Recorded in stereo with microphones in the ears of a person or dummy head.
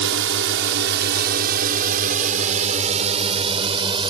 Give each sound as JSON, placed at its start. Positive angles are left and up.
{"t": 0.0, "sound": "a drone", "side_deg": -65}